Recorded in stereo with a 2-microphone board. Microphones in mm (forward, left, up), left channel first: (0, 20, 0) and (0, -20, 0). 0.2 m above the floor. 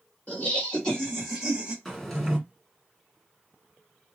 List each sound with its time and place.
0.3 s laughter: 35° left (ahead or behind), 2.0 m; by 1.8 s 20° right (ahead or behind), 1.8 m
1.9 s a drawer: 5° left (ahead or behind), 1.3 m